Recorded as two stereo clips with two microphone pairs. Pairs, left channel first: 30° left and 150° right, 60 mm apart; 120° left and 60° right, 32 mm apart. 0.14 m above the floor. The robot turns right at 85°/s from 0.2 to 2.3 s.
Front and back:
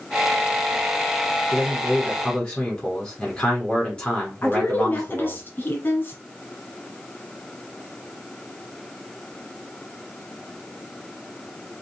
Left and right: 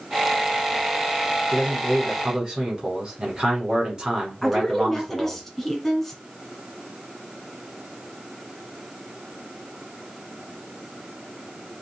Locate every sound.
1.5 s a man speaking: 90° right, 1.6 m; by 5.4 s 20° right, 1.6 m
4.4 s a woman speaking: 40° left, 1.4 m